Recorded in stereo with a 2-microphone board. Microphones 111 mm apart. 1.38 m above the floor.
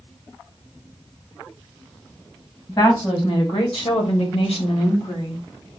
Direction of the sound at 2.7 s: 45° left (ahead or behind).